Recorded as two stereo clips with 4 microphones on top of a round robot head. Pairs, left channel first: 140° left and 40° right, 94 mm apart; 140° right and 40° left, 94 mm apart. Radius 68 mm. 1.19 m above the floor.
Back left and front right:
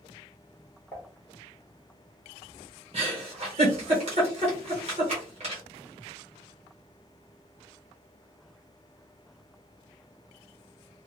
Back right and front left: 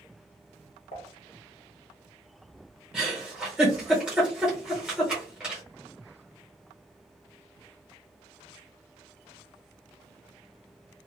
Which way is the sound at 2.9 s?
40° right.